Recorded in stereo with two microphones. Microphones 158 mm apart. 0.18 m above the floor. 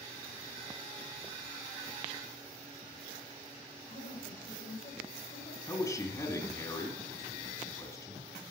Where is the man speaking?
20° left (ahead or behind), 1.7 m.